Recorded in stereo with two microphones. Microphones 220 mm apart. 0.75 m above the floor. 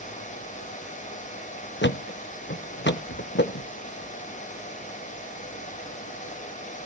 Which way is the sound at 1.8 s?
60° left (ahead or behind).